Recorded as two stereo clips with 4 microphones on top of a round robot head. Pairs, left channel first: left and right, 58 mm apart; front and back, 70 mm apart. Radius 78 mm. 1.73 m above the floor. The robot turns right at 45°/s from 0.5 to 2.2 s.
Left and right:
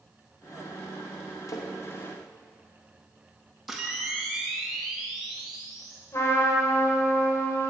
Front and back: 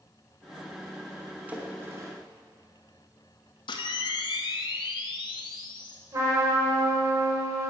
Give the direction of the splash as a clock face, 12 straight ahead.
8 o'clock.